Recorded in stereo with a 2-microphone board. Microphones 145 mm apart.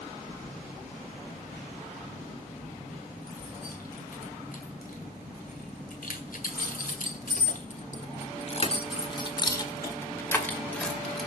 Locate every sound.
0.3 s keys jangling: 65° left (ahead or behind), 5 m; by 11.3 s centre (ahead or behind), 2 m